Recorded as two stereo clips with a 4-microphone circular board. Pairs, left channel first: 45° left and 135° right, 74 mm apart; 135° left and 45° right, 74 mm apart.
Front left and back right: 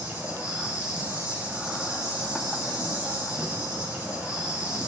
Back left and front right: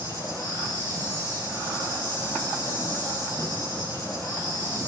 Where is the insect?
150° left, 7 m.